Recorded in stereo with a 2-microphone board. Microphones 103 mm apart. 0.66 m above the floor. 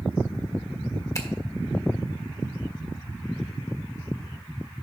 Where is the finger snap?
30° left (ahead or behind), 1.4 m.